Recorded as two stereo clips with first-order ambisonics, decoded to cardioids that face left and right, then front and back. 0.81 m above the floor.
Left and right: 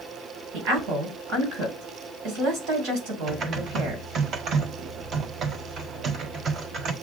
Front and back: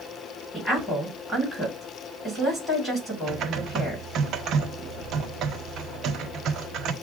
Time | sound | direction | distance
0.5 | a woman speaking | 80° right | 3 m
3.3 | typing on a keyboard | 140° right | 0.6 m